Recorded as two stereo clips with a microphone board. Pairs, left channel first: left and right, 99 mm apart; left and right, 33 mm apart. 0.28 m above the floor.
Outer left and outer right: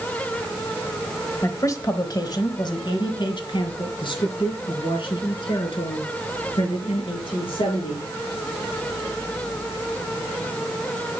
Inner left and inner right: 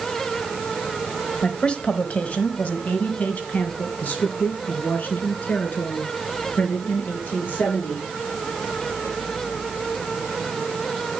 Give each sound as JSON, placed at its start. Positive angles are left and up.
{"t": 1.4, "sound": "a woman speaking", "side_deg": 30, "distance_m": 1.2}